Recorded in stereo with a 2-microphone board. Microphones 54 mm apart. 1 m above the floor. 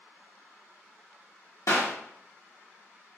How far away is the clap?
About 1.3 m.